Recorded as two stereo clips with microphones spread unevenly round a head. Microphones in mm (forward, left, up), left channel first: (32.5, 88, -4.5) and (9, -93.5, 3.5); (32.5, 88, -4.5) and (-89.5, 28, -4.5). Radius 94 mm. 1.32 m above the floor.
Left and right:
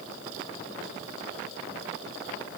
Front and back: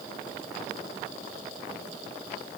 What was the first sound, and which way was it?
Only background noise.